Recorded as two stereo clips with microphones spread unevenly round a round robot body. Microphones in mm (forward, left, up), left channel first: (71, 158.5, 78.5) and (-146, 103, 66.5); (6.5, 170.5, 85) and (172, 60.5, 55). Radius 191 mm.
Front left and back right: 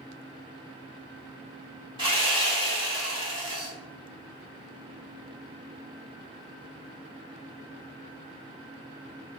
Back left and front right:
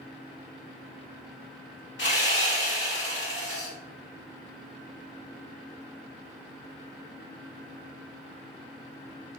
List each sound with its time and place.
2.0 s sawing: 130° left, 1.5 m